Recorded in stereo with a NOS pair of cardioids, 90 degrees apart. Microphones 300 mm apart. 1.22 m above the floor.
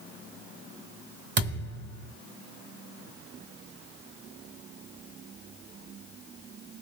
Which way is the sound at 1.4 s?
35° right.